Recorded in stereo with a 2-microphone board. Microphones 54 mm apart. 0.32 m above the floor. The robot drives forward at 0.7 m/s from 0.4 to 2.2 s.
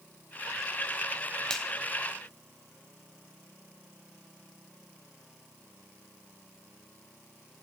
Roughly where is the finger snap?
Centre.